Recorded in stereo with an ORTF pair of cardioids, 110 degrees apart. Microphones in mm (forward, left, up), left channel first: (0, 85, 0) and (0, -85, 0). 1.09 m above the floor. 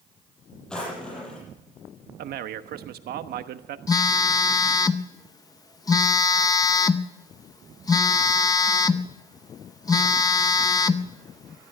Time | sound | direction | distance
0.7 | a drawer | 5° left | 7.5 m
2.2 | a man speaking | 65° right | 1.2 m
3.9 | a phone buzzing | 20° left | 0.8 m